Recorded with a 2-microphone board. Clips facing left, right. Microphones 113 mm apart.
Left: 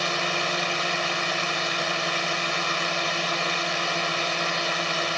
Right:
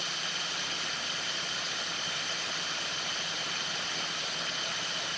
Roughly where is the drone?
Left.